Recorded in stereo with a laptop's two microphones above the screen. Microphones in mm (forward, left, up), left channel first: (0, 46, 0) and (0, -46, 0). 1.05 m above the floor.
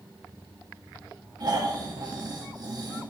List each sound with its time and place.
1.4 s snoring: 45° right (ahead or behind), 1.8 m